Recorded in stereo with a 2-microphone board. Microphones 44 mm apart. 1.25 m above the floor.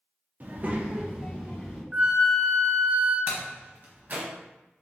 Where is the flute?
25° right (ahead or behind), 0.8 m.